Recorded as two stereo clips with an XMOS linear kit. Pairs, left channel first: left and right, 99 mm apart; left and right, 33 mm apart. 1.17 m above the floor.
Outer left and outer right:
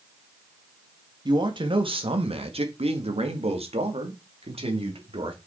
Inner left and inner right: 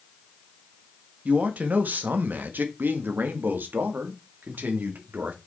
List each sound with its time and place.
1.2 s a man speaking: 50° right (ahead or behind), 1.6 m; by 5.4 s 65° right (ahead or behind), 3 m